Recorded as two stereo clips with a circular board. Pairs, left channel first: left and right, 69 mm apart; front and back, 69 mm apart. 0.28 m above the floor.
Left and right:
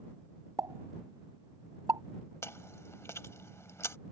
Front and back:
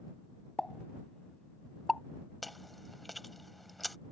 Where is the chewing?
90° left.